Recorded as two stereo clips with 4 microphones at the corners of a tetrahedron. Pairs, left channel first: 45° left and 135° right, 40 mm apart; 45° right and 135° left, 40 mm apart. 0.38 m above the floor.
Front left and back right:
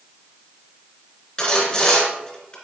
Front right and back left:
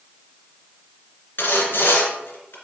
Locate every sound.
1.4 s sawing: 30° right, 1.6 m